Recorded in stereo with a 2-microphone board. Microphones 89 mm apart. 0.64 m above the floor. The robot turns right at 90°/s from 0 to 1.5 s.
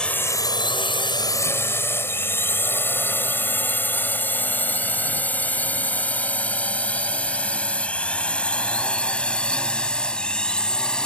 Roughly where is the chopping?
No chopping in this recording.